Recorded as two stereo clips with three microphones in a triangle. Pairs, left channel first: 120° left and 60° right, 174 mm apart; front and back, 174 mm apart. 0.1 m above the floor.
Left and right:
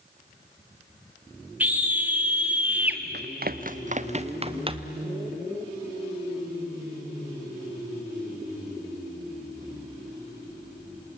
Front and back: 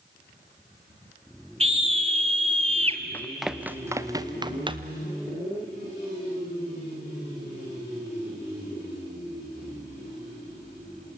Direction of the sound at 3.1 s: 80° right.